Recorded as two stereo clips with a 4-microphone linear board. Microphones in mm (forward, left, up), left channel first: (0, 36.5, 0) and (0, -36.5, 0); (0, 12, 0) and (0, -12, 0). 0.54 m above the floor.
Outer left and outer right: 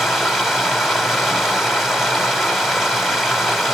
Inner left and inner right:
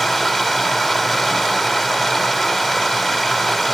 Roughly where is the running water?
Centre.